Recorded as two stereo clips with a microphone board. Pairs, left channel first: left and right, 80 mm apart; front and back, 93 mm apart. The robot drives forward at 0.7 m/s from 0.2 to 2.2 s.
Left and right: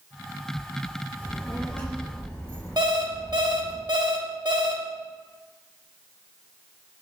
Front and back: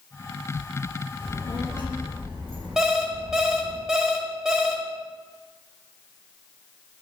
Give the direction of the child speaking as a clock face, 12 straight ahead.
7 o'clock.